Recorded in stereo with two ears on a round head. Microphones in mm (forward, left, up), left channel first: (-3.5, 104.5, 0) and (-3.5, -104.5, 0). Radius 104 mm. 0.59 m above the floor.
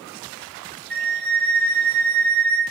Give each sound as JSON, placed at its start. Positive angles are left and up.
{"t": 0.9, "sound": "a flute", "side_deg": -45, "distance_m": 1.6}